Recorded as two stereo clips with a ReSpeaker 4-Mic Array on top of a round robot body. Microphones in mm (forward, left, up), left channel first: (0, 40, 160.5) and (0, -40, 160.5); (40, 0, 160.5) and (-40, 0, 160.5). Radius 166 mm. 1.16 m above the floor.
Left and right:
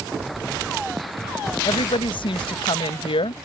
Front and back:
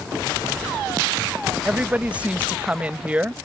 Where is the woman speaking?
105° left.